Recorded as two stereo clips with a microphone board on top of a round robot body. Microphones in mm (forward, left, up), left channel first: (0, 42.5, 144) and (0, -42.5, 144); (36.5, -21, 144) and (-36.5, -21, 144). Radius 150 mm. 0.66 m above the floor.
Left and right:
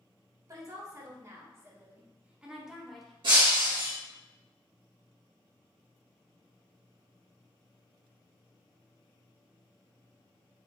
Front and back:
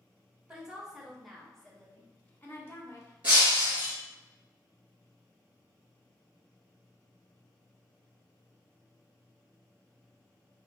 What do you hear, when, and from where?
0.5 s a woman speaking: 105° right, 1.5 m; by 3.1 s 5° left, 1.3 m
3.2 s breaking glass: 105° right, 1.4 m